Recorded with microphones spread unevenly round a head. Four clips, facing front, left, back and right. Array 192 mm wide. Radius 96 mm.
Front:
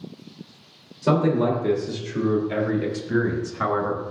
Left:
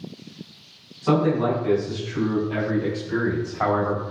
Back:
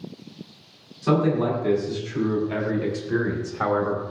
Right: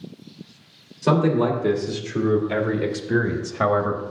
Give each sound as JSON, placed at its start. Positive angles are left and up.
{"t": 1.0, "sound": "a man speaking", "azimuth_deg": -50, "distance_m": 3.0}